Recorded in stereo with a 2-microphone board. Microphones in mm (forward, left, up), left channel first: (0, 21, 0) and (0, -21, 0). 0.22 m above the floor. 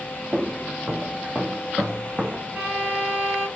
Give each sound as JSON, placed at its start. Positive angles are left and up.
{"t": 0.3, "sound": "footsteps", "side_deg": -15, "distance_m": 1.9}
{"t": 2.5, "sound": "a violin", "side_deg": -30, "distance_m": 2.0}